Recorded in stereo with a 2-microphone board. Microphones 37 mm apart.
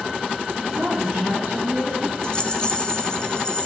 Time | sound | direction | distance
0.7 | a woman speaking | 50° right (ahead or behind) | 3 m
2.2 | a rattle | 25° left (ahead or behind) | 0.8 m